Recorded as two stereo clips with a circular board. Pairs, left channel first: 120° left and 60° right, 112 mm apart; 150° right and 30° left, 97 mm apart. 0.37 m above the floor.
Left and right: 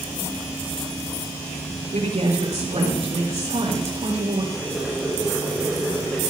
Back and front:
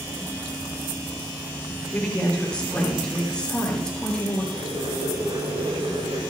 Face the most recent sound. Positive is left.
turn(degrees=30)